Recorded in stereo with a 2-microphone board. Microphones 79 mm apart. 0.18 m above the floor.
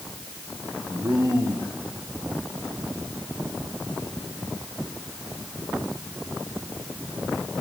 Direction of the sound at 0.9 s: 65° right (ahead or behind).